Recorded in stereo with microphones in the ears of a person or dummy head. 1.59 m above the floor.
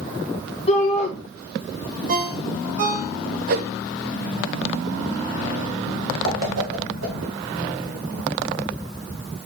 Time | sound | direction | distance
0.7 | a shout | 35° left (ahead or behind) | 3 m
2.1 | a ringtone | 40° right (ahead or behind) | 0.8 m
3.5 | a whoosh | 50° right (ahead or behind) | 0.6 m
6.2 | a whoosh | 80° right | 2.5 m